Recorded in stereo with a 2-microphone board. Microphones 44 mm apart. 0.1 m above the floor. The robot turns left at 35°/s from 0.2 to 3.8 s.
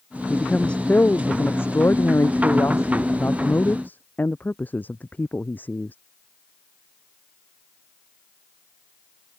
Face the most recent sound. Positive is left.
turn(degrees=45)